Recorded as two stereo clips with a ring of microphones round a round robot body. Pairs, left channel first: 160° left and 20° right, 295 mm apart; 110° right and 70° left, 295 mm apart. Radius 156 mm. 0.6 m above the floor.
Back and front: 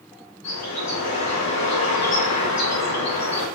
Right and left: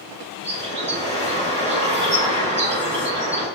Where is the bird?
120° left, 4.5 m.